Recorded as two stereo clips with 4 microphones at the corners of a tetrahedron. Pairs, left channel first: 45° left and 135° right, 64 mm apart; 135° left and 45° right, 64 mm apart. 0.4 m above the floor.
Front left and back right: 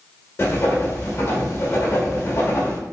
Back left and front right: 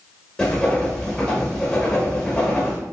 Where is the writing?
65° left, 1.0 m.